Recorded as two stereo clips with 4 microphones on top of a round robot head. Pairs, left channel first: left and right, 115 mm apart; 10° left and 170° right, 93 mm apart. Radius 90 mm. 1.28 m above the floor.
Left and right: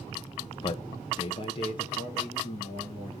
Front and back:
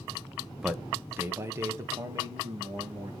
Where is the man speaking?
105° left, 0.6 m; by 3.1 s 135° left, 2.5 m.